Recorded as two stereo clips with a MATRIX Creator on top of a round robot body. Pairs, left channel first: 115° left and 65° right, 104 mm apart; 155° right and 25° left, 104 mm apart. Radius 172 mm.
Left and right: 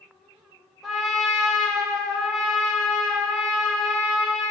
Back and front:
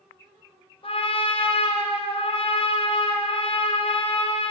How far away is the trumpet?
About 2.5 m.